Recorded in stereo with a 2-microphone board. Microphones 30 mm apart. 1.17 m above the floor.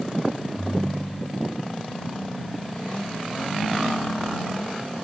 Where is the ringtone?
70° right (ahead or behind).